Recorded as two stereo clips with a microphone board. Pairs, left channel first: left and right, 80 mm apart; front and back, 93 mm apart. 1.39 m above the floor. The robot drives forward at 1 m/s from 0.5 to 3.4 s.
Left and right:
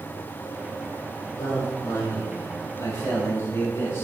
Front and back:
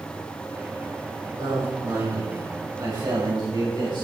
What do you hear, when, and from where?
1.4 s a man speaking: 130° left, 5 m; by 4.0 s 145° left, 6.5 m